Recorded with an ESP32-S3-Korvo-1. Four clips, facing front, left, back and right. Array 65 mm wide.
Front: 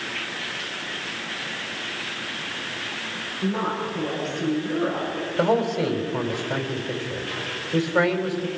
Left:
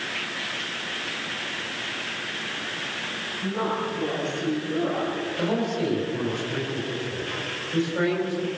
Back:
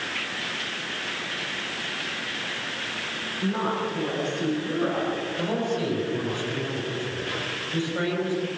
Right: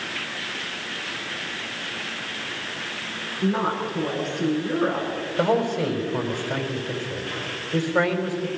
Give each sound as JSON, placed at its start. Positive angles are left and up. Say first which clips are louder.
{"t": 3.4, "sound": "a woman speaking", "louder": "right 3 dB, front 1 dB", "azimuth_deg": -90, "distance_m": 10.0}
{"t": 5.4, "sound": "a man speaking", "louder": "right 5 dB, front 8 dB", "azimuth_deg": -45, "distance_m": 3.5}